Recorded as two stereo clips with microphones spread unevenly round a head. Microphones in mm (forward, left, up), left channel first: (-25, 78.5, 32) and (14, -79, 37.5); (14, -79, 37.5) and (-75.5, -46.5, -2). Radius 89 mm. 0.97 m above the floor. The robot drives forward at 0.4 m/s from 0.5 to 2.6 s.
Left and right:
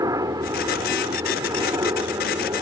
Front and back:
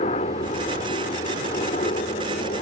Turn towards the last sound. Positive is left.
turn(degrees=-5)